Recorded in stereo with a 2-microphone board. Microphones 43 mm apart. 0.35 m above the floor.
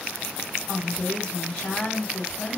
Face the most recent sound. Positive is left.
turn(degrees=25)  # may be behind; listen again after turning